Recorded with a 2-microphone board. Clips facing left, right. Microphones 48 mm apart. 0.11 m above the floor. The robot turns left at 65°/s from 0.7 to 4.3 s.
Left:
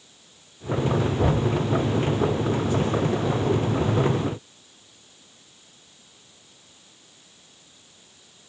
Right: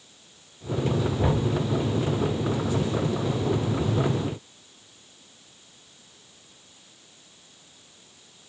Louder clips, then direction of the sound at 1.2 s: Left 2 dB; 25° right (ahead or behind).